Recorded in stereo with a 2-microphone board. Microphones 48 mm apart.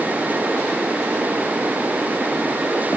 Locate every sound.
Only background noise.